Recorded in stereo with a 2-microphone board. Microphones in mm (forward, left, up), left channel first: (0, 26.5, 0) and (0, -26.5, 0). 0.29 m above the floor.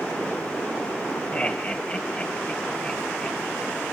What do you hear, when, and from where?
1.3 s laughter: 20° left (ahead or behind), 1.3 m